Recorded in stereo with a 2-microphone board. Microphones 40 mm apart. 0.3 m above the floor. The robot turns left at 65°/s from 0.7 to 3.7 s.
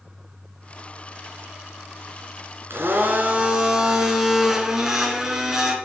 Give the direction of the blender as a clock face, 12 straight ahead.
4 o'clock.